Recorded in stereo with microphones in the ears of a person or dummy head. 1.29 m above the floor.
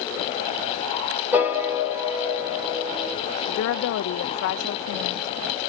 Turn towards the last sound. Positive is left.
turn(degrees=65)  # may be behind; listen again after turning